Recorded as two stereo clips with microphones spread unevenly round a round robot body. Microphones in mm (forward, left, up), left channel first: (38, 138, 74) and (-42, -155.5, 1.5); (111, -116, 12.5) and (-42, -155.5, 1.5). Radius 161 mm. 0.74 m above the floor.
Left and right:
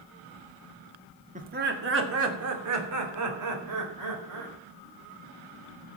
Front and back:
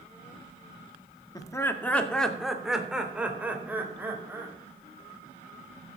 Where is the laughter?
55° right, 1.8 m; by 4.5 s 90° right, 5 m.